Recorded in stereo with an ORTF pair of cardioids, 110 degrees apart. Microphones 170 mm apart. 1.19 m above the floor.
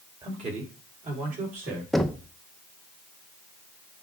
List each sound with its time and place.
0.2 s a man speaking: 35° right, 2.5 m; by 1.8 s 55° right, 4.5 m
1.9 s knocking: straight ahead, 0.6 m